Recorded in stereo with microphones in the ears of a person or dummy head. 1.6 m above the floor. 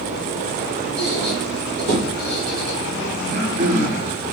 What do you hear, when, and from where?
1.0 s a squeak: 65° right (ahead or behind), 1.4 m
3.2 s throat clearing: 35° right (ahead or behind), 0.7 m